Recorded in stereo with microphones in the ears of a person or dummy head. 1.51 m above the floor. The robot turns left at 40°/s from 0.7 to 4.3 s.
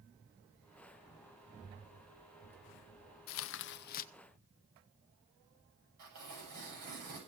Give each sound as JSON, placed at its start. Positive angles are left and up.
{"t": 3.3, "sound": "tearing paper", "azimuth_deg": 75, "distance_m": 0.6}
{"t": 6.0, "sound": "tearing paper", "side_deg": -50, "distance_m": 8.0}